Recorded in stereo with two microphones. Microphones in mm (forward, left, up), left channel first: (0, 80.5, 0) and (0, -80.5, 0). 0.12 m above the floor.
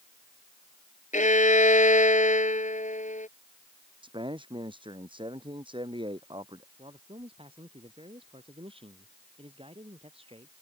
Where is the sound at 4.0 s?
30° right (ahead or behind).